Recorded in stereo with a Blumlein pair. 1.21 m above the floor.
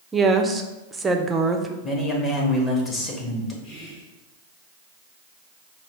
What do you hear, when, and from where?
0.1 s a woman speaking: 15° right, 0.5 m
1.8 s a man speaking: 20° left, 1.2 m
3.6 s whispering: 40° left, 1.6 m